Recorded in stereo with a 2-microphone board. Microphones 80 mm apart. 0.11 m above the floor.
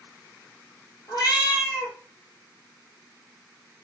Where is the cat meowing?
60° left (ahead or behind), 1.5 m.